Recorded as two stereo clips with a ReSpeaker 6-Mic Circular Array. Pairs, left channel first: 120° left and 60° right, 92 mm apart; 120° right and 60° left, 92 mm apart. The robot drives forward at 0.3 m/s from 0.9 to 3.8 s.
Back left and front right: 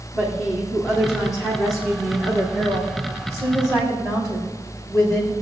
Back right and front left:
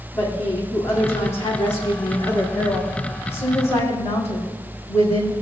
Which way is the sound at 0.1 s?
Straight behind.